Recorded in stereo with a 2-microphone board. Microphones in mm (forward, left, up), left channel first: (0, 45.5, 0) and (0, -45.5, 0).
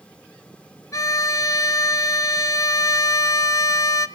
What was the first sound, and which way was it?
A violin, 40° left (ahead or behind).